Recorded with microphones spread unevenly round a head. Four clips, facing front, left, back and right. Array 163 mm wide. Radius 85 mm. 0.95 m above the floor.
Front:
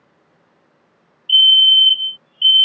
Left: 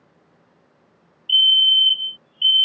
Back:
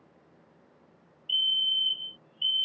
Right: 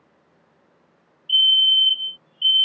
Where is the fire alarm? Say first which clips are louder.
Left 1 dB, front 16 dB; 30° right.